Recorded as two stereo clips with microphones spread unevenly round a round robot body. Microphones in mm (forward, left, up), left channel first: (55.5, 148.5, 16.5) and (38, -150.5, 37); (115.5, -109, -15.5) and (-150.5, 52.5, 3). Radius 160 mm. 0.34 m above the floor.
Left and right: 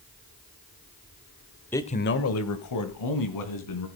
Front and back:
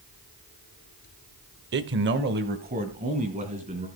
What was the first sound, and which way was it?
A man speaking, 155° left.